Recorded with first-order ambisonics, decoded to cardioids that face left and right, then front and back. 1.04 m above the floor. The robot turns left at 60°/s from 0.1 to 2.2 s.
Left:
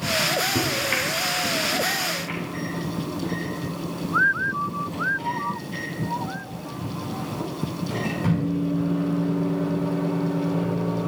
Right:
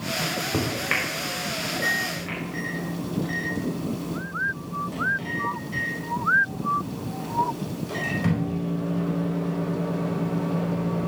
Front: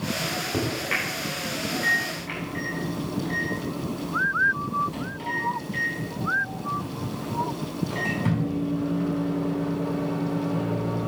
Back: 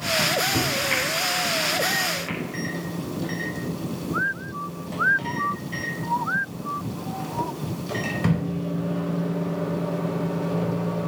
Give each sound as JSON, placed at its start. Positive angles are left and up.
{"t": 0.2, "sound": "a microwave", "azimuth_deg": -50, "distance_m": 5.0}